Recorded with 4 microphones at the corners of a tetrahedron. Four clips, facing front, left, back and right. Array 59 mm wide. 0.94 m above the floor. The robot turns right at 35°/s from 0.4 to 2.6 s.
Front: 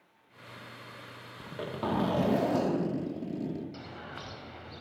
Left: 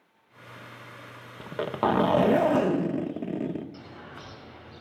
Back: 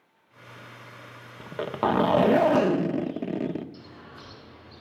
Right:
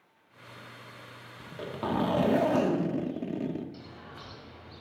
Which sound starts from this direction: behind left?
A zipper, at 1.4 s.